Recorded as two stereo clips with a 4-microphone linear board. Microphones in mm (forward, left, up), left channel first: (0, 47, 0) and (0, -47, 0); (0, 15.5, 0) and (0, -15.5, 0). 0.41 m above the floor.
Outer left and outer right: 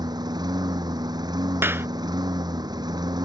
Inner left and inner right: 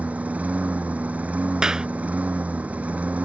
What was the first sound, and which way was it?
A lawn mower, 50° right (ahead or behind).